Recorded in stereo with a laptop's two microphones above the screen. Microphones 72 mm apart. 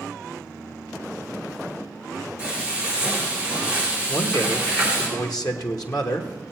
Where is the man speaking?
55° left (ahead or behind), 1.2 m.